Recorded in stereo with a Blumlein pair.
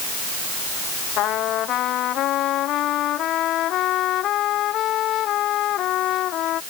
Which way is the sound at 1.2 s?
35° left.